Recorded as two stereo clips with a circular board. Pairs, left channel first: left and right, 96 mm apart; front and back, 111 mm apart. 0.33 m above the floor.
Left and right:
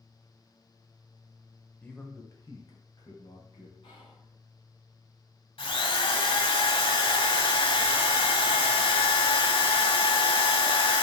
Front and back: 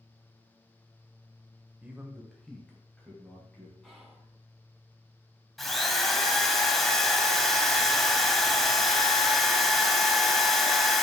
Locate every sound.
1.8 s a man speaking: 130° left, 1.2 m; by 3.7 s 70° left, 2.5 m
3.8 s whispering: 85° left, 3 m
5.6 s a drill: 85° left, 0.9 m